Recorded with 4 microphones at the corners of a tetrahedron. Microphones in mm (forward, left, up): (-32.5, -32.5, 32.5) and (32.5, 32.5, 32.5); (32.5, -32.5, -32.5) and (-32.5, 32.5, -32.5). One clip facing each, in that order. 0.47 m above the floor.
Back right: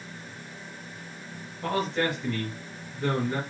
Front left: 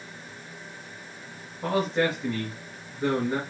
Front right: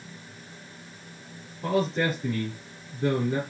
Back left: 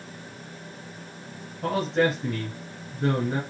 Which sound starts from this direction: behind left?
A man speaking, at 1.6 s.